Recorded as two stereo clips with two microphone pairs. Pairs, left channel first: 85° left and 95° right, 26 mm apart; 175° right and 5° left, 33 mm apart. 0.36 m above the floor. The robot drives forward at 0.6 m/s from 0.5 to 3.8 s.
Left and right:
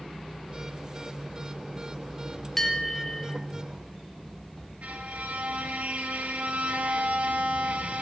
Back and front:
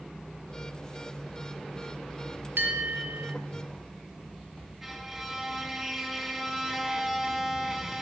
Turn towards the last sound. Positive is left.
turn(degrees=-80)